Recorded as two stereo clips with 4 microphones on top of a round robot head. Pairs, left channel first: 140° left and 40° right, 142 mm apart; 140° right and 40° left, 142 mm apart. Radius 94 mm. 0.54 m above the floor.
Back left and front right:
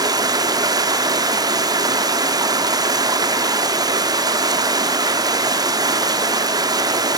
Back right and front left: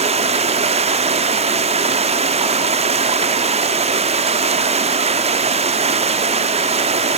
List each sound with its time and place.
0.0 s running water: 15° left, 0.8 m